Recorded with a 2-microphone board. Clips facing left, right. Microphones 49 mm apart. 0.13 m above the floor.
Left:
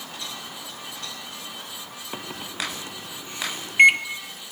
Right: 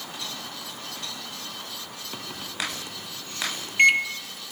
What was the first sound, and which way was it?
A microwave, 20° left (ahead or behind).